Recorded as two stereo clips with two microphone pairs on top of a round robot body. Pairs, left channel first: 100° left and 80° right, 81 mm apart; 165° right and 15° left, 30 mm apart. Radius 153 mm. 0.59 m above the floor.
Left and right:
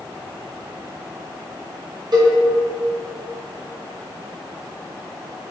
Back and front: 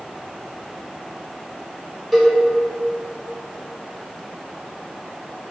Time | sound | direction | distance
2.1 | a cowbell | 70° right | 1.1 m